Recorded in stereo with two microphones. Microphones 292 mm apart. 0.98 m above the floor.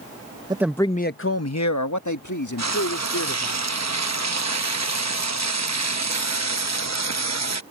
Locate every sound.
0.5 s a man speaking: 15° right (ahead or behind); by 3.6 s 85° left
2.6 s frying: 65° right (ahead or behind)